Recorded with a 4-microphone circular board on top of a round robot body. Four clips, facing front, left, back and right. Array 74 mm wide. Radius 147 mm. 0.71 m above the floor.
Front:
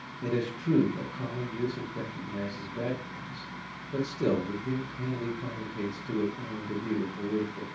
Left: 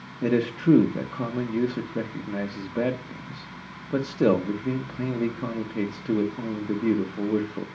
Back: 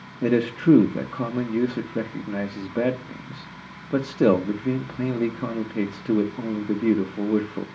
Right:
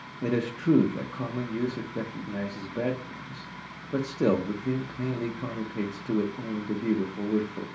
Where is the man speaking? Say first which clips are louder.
Left 4 dB, back 11 dB; 160° left, 0.8 m.